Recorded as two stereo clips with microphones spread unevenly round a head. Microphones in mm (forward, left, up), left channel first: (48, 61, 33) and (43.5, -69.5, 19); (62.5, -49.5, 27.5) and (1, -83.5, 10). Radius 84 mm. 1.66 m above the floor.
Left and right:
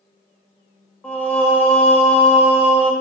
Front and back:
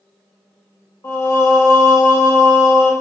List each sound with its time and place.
1.0 s singing: 15° left, 1.5 m